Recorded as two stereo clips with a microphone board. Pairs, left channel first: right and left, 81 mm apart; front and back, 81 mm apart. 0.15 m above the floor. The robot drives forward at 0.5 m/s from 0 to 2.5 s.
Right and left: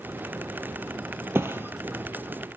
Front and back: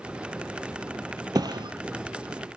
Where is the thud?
150° left, 1.5 m; by 1.7 s 155° left, 1.6 m.